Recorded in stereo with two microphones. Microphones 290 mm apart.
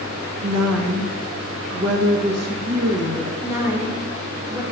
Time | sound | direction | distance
0.4 | a woman speaking | 60° right (ahead or behind) | 0.9 m
3.4 | a woman speaking | 10° right (ahead or behind) | 1.4 m